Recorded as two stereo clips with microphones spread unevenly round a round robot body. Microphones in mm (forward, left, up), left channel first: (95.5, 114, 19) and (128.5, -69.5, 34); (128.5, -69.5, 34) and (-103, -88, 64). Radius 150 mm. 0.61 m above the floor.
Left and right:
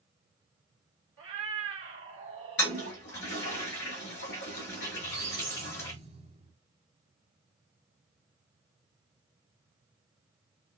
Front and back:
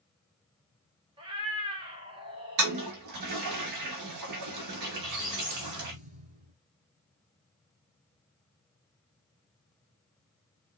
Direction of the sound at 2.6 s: 160° left.